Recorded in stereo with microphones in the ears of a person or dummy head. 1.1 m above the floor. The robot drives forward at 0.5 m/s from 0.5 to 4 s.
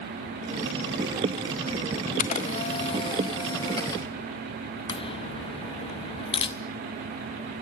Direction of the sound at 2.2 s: 40° left (ahead or behind).